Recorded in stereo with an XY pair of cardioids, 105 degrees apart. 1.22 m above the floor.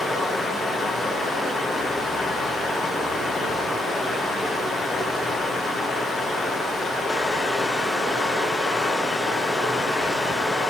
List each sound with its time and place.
0.0 s running water: straight ahead, 3 m